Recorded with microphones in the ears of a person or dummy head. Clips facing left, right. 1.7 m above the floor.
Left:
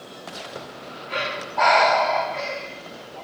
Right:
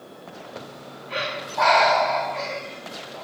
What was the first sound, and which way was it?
Breathing, 50° left (ahead or behind).